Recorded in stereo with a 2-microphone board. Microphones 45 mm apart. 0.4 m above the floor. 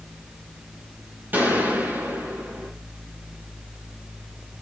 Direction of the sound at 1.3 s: 45° right (ahead or behind).